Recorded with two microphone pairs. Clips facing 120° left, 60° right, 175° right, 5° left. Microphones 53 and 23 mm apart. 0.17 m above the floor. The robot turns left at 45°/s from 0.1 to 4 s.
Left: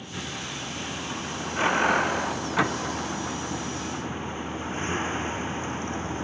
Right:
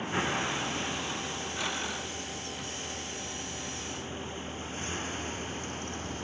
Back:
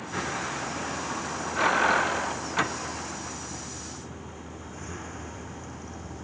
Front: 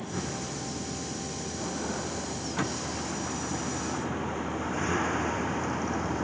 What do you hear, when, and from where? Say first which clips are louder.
0.0 s a vehicle: right 5 dB, back 3 dB; 120° right; by 6.2 s 55° left